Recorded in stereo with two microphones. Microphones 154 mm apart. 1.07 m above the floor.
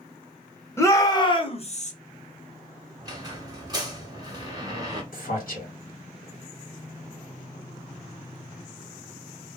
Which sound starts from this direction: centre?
A shout, at 0.8 s.